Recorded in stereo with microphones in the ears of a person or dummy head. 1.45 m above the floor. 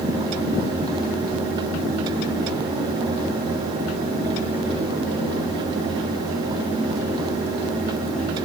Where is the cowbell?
No cowbell in this recording.